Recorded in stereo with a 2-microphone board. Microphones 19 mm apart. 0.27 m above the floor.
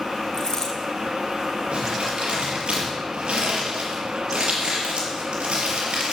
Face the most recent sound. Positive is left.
turn(degrees=-80)